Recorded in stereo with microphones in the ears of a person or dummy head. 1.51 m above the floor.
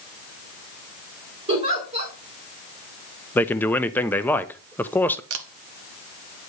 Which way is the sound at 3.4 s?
5° left (ahead or behind).